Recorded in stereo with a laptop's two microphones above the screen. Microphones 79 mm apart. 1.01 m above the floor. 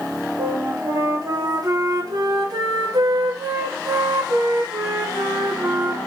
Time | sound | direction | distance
0.4 | a flute | 50° right (ahead or behind) | 0.5 m